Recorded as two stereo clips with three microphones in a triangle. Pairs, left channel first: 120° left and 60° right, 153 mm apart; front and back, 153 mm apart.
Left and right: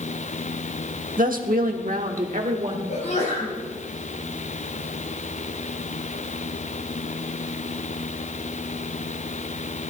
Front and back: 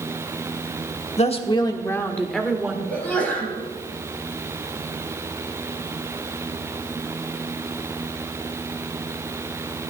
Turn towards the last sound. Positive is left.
turn(degrees=80)